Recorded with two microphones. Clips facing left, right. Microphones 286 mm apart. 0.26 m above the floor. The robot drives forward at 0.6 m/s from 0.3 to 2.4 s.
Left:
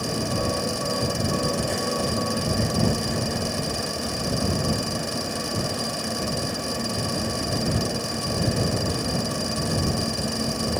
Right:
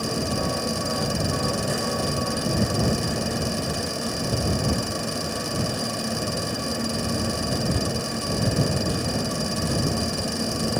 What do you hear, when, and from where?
Only background noise.